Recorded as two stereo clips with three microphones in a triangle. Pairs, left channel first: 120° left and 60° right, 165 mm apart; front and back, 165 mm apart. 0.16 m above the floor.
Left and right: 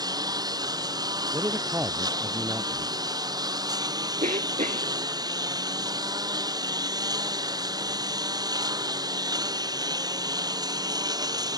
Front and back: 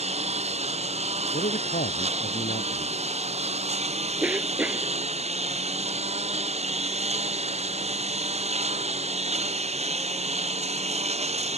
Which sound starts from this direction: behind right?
A lawn mower, at 0.0 s.